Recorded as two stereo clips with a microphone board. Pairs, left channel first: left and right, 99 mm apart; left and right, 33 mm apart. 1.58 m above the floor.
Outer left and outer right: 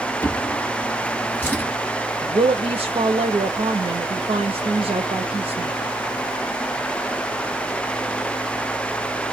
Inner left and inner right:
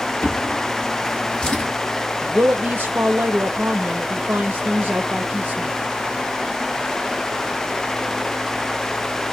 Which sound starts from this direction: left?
A drawer, at 0.2 s.